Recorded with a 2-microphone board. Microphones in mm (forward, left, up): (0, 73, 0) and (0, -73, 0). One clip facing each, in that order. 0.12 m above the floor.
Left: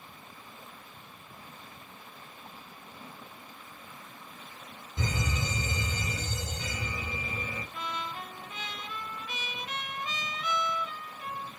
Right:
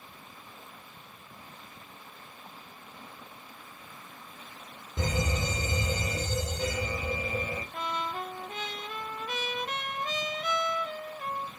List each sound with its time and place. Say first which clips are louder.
5.0 s a fire alarm: right 3 dB; 55° right (ahead or behind), 5.5 m
7.7 s a trumpet: right 4 dB; 50° right (ahead or behind), 1.0 m